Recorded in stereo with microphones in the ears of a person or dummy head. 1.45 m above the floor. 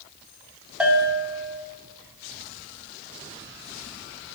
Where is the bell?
5° right (ahead or behind), 1.1 m.